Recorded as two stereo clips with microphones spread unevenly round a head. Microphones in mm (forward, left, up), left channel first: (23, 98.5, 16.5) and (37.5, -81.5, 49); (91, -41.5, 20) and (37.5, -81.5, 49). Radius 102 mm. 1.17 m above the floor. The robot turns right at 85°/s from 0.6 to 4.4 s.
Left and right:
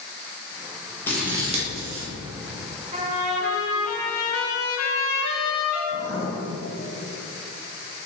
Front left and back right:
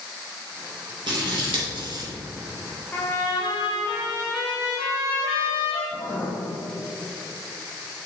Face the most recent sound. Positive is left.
turn(degrees=100)